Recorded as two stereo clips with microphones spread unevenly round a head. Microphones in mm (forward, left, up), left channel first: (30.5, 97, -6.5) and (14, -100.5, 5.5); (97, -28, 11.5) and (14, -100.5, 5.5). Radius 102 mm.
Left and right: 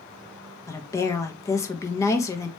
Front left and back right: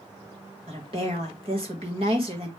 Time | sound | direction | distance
0.7 | a woman speaking | 160° left | 1.3 m